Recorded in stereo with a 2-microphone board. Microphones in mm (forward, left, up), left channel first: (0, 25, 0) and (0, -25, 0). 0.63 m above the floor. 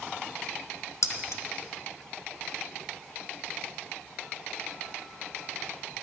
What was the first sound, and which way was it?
Keys jangling, 70° left (ahead or behind).